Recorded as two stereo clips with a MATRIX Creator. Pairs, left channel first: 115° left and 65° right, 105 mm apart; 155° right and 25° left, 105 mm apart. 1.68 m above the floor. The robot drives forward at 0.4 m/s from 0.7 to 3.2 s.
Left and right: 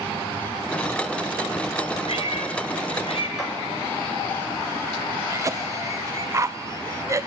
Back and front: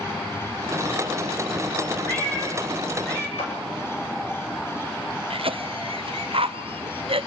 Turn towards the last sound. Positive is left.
turn(degrees=-5)